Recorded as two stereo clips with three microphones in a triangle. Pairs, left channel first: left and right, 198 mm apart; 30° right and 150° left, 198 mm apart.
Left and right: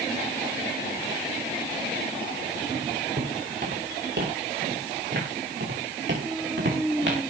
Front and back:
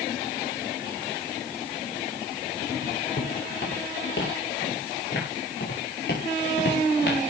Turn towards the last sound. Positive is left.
turn(degrees=-70)